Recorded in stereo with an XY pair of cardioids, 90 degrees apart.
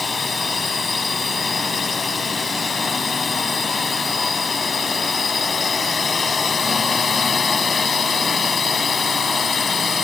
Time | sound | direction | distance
0.0 | a drone | 40° left | ?